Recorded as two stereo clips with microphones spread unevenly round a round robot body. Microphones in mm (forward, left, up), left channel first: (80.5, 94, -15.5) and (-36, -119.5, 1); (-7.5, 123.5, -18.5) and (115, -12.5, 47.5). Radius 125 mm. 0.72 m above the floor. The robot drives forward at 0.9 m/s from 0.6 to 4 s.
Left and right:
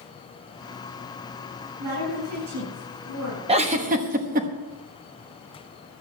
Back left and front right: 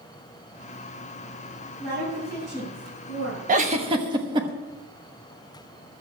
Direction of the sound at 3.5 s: 80° right.